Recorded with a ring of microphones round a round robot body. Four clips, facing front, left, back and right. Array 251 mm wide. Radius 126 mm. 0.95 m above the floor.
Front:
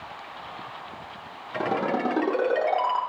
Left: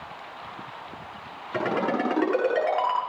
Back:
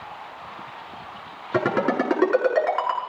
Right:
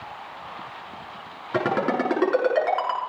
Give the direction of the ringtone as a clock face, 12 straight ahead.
5 o'clock.